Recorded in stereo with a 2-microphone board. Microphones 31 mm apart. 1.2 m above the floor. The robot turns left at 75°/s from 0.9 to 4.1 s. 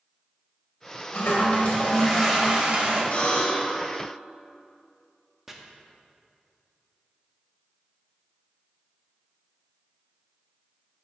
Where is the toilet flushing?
85° left, 2 m; by 3.0 s 60° right, 2 m.